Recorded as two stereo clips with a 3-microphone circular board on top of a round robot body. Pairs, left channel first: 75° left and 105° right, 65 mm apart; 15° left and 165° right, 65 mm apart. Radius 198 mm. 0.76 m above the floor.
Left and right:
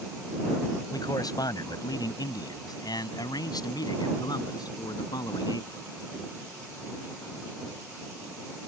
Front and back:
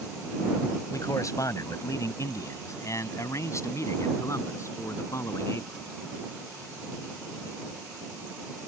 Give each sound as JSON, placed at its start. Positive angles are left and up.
{"t": 0.9, "sound": "a man speaking", "azimuth_deg": 50}